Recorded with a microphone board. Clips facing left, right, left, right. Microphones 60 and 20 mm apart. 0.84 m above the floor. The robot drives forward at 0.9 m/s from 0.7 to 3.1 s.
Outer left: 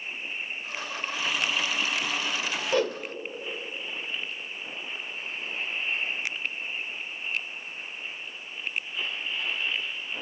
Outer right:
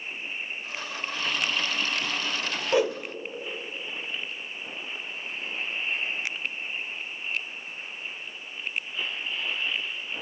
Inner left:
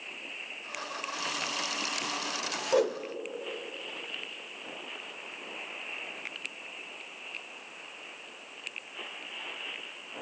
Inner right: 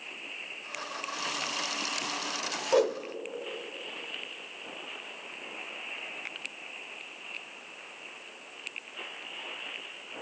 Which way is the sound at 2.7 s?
10° right (ahead or behind).